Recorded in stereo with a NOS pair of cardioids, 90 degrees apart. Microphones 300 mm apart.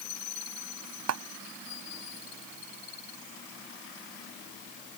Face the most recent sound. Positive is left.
turn(degrees=-60)